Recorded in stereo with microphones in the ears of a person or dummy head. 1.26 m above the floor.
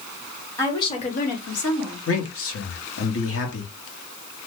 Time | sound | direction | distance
0.6 | a woman speaking | 10° left (ahead or behind) | 1.0 m
2.1 | a man speaking | 60° left (ahead or behind) | 1.1 m